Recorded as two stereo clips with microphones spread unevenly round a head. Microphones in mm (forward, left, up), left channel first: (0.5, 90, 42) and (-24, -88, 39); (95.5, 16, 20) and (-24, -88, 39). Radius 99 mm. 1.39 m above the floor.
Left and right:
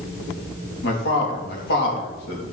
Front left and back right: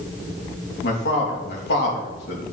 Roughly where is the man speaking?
Ahead left.